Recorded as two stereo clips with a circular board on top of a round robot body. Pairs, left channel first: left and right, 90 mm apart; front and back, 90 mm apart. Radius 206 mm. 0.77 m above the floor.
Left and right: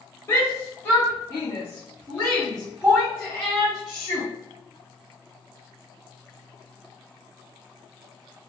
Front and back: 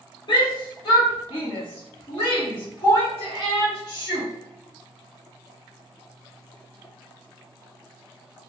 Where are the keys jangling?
No keys jangling in this recording.